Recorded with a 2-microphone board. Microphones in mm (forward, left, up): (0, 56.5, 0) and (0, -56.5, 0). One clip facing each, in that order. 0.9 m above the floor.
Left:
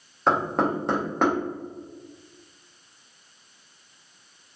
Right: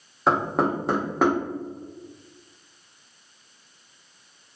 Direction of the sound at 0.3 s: 5° right (ahead or behind).